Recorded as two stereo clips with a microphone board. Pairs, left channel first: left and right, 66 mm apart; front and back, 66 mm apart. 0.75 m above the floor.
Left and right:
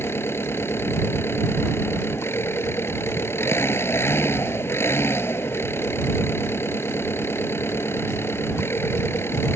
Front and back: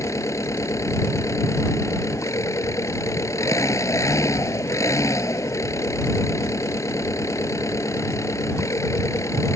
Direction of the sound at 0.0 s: 40° left.